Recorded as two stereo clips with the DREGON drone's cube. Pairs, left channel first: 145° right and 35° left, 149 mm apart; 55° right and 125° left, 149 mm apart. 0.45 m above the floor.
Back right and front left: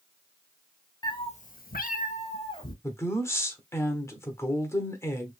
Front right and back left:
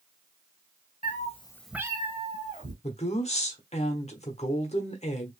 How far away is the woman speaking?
About 1.1 m.